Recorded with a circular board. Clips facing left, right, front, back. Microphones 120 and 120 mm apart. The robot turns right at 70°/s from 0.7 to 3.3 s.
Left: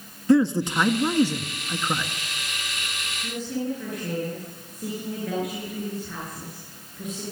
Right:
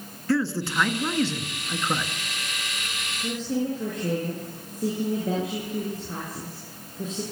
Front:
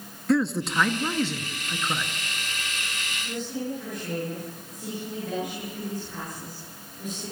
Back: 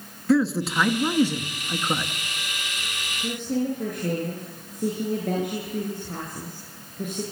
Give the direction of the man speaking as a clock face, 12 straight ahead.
9 o'clock.